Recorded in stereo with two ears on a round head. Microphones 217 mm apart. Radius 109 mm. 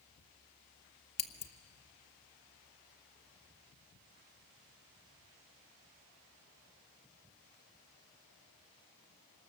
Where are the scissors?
25° left (ahead or behind), 1.1 m.